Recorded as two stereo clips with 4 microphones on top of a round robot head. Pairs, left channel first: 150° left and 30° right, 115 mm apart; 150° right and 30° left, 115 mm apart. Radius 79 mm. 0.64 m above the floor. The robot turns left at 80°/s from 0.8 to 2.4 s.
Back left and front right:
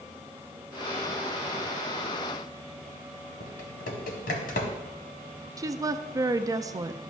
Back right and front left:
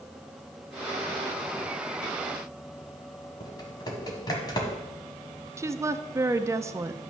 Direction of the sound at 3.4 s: 155° left.